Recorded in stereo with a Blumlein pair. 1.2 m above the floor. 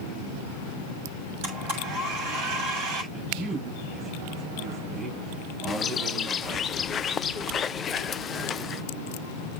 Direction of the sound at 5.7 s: 25° left.